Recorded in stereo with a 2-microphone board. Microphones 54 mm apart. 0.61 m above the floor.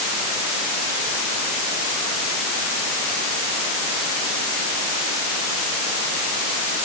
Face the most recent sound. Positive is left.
No sound to turn to.